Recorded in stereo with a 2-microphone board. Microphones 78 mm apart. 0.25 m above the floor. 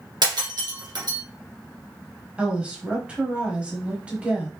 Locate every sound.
0.2 s breaking glass: 70° right (ahead or behind), 1.4 m
2.4 s a woman speaking: 15° right (ahead or behind), 1.0 m